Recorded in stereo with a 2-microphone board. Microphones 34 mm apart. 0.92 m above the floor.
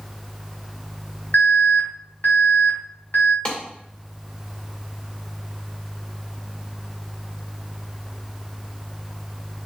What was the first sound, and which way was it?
An alarm, 65° left (ahead or behind).